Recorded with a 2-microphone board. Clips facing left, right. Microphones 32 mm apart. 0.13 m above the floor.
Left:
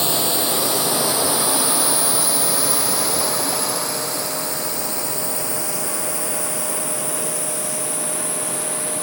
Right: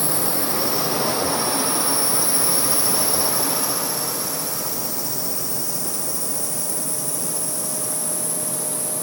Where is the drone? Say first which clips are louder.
Left 4 dB; 70° left (ahead or behind); by 9.0 s 45° left (ahead or behind).